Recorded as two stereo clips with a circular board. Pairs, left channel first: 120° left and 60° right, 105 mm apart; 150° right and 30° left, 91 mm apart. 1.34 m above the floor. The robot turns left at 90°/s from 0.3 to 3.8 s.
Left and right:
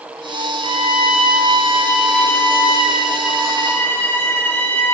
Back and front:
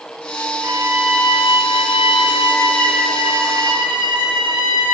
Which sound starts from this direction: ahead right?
A violin, at 0.6 s.